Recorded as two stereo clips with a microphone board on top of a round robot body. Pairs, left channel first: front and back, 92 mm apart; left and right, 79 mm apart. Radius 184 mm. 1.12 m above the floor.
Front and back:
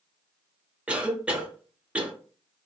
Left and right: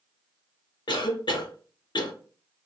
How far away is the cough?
About 0.8 m.